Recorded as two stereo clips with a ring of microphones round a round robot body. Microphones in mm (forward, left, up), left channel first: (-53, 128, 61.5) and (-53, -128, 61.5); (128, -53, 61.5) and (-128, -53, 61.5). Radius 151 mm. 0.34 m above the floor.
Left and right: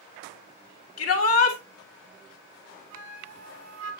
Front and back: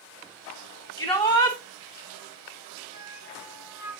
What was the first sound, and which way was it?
A shout, 75° left.